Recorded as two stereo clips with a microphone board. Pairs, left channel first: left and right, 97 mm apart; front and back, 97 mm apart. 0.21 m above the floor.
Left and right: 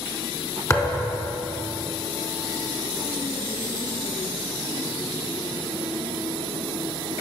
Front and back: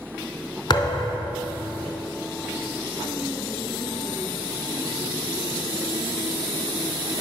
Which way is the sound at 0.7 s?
35° left.